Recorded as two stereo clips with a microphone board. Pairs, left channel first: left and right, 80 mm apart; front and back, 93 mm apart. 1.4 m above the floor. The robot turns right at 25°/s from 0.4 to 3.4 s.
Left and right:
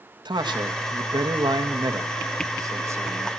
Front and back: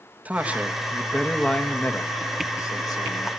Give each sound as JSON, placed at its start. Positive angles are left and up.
{"t": 0.2, "sound": "a man speaking", "azimuth_deg": -105, "distance_m": 2.0}